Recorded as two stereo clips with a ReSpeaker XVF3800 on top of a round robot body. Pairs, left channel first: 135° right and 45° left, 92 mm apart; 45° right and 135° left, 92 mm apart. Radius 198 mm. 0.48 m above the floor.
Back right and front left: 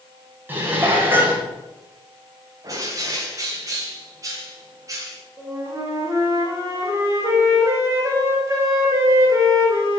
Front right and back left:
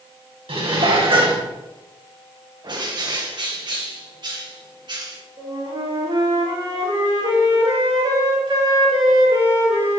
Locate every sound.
0.5 s dishes clattering: 115° left, 3.5 m
2.6 s a bird: 100° left, 2.5 m
5.4 s a flute: 105° left, 4 m